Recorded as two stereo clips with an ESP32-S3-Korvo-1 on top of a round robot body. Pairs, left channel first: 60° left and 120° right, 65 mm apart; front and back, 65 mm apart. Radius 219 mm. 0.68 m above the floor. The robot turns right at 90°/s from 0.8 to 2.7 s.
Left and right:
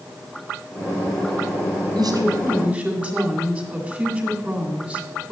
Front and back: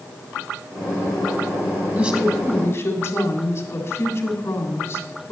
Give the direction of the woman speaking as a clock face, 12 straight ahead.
4 o'clock.